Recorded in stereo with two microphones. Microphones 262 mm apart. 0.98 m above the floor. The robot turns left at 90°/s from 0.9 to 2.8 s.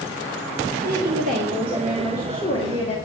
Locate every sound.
0.8 s a woman speaking: 80° right, 1.7 m; by 3.0 s 110° left, 1.7 m